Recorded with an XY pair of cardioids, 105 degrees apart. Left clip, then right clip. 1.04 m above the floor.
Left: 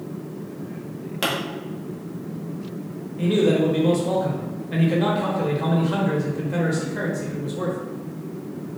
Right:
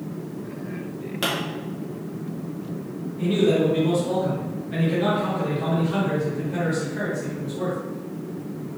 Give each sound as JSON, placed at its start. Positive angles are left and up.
{"t": 1.2, "sound": "a pop", "azimuth_deg": 20, "distance_m": 0.9}
{"t": 3.2, "sound": "a man speaking", "azimuth_deg": 50, "distance_m": 1.0}